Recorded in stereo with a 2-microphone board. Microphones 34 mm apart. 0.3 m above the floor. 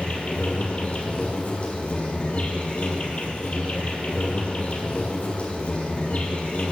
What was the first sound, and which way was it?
An insect, 40° left (ahead or behind).